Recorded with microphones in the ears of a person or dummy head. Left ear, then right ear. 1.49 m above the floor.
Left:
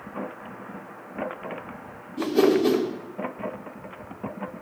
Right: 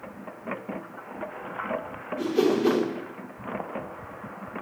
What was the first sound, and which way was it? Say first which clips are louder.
A whoosh: left 3 dB; 45° left (ahead or behind).